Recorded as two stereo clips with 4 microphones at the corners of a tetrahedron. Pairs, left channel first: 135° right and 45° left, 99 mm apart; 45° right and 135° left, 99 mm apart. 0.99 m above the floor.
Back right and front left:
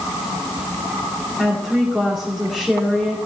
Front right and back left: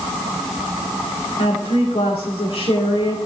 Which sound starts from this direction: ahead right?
A woman speaking, at 1.4 s.